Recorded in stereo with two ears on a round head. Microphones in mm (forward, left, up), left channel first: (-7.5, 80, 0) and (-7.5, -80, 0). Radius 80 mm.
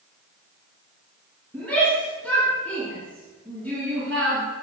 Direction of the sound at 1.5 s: 10° left (ahead or behind).